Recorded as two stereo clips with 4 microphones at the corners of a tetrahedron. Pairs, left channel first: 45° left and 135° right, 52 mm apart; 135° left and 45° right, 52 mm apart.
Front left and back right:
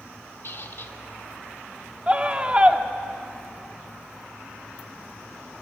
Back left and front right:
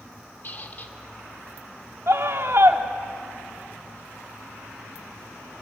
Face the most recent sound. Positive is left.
turn(degrees=-70)